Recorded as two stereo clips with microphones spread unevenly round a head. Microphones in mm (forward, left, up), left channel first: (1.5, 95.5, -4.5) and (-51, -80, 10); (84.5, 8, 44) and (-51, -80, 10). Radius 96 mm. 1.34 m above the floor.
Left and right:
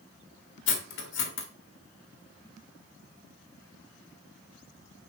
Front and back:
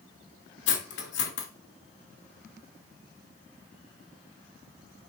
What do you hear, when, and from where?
0.7 s cutlery clinking: 40° left, 1.5 m